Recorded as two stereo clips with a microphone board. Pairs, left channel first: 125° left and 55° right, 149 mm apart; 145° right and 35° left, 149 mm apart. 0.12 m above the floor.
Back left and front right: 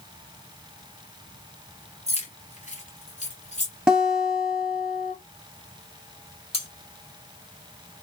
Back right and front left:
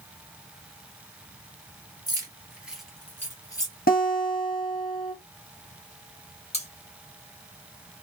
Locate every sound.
2.1 s keys jangling: 90° left, 1.3 m; by 3.7 s 155° left, 1.5 m
3.9 s a guitar: 140° right, 1.2 m
6.5 s cutlery clinking: 175° left, 1.6 m